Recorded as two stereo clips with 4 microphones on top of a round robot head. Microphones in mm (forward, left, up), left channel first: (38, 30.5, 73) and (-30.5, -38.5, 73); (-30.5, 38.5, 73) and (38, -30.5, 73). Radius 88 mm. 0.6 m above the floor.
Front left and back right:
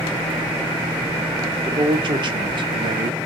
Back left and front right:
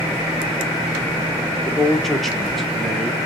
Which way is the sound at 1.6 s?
140° right.